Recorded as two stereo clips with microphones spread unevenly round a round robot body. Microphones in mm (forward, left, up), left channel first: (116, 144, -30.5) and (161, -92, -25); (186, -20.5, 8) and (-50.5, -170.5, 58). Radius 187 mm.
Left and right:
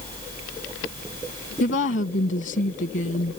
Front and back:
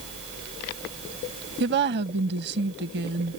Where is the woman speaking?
150° left.